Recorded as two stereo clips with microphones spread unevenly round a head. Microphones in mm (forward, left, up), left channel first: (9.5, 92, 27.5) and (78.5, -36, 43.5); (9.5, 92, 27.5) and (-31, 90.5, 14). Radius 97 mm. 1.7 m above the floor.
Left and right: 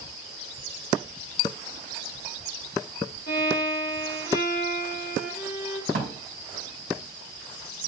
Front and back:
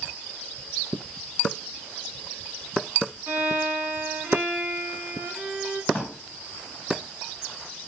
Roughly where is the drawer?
Right.